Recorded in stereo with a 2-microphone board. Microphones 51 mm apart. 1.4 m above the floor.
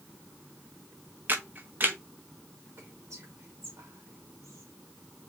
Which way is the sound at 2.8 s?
90° right.